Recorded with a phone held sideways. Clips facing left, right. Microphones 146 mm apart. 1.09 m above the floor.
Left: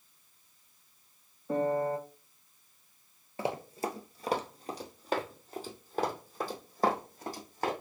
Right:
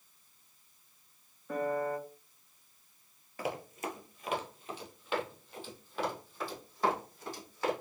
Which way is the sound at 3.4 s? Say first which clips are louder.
Left 4 dB; 25° left (ahead or behind).